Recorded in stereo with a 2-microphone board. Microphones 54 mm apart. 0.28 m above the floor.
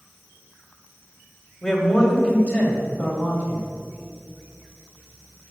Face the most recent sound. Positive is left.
turn(degrees=40)  # may be behind; listen again after turning